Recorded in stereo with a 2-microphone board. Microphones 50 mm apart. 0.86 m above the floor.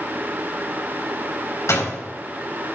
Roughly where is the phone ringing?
I don't hear a phone ringing.